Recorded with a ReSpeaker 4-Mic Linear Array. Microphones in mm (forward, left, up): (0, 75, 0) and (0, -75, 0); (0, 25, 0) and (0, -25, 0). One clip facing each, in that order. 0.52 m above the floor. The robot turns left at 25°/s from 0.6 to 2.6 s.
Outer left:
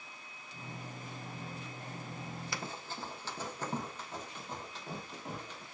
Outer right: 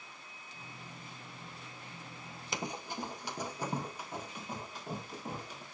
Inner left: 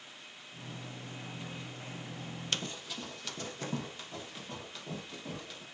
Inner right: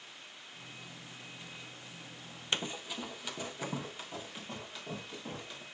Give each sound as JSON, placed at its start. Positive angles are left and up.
{"t": 2.5, "sound": "running footsteps", "side_deg": -20, "distance_m": 0.6}